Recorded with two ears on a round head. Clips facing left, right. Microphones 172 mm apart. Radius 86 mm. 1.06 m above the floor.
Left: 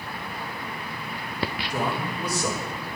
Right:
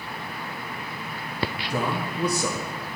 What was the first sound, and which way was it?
A man speaking, 70° right (ahead or behind).